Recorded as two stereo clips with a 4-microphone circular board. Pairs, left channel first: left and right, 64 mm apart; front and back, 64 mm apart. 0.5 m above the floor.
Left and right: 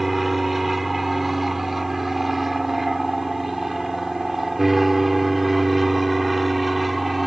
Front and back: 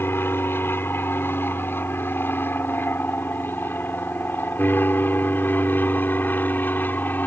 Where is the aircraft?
5° right.